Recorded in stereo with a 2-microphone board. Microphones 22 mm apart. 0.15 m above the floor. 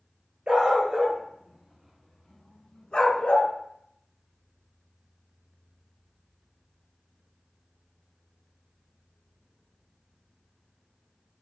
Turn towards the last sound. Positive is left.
turn(degrees=55)  # may be behind; listen again after turning